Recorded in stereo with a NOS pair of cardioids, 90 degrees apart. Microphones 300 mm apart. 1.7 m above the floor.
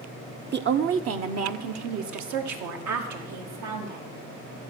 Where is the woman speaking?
35° right, 0.9 m; by 4.0 s 75° right, 3 m.